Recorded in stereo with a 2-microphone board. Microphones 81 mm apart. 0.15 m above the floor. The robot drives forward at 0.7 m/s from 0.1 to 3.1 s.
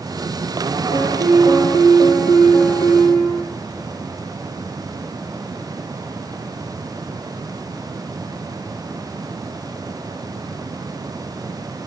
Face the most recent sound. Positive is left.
turn(degrees=70)  # may be behind; listen again after turning